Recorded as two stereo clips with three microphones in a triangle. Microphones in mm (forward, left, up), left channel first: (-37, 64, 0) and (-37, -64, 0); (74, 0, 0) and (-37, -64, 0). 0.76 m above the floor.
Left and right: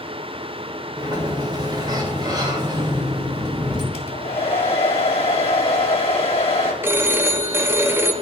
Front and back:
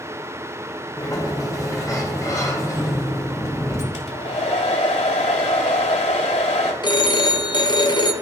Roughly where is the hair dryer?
Ahead left.